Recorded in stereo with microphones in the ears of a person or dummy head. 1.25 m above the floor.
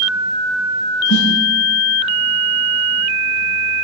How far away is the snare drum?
About 8 m.